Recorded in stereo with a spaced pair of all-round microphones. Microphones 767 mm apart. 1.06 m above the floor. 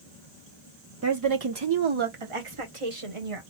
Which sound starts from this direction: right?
A woman speaking, at 1.0 s.